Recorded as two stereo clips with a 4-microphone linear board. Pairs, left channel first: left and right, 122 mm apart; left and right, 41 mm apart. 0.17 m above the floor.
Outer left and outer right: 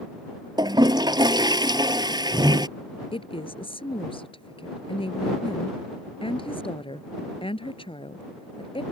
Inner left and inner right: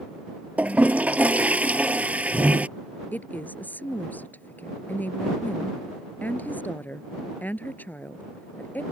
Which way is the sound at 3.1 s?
50° left (ahead or behind).